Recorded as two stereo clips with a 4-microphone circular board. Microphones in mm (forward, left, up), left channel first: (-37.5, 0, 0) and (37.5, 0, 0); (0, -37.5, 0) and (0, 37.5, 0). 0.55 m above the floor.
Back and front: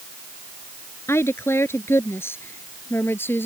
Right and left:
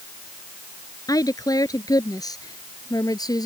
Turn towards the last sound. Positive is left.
turn(degrees=-120)